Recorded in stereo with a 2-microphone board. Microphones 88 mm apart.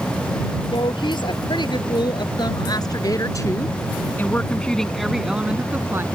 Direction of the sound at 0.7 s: 65° left (ahead or behind).